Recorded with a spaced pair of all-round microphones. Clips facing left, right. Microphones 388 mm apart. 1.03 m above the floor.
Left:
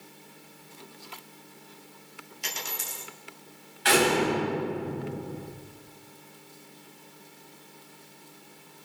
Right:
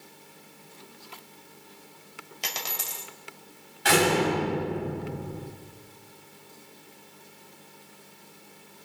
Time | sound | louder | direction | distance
2.4 | a dropped coin | right 1 dB | 75° right (ahead or behind) | 2 m
3.9 | a door slam | even | 60° right (ahead or behind) | 5 m